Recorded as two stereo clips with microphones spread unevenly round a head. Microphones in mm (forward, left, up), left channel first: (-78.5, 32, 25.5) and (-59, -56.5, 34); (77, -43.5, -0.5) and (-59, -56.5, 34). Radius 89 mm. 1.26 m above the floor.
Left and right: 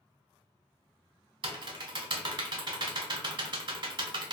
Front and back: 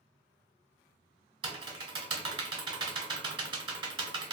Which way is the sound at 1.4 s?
115° right.